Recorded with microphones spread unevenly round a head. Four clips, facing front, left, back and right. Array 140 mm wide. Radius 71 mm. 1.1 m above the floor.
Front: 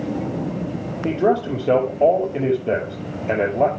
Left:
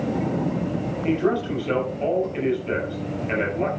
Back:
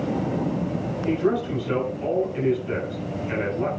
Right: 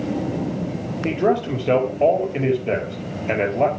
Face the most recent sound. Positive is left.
turn(degrees=-35)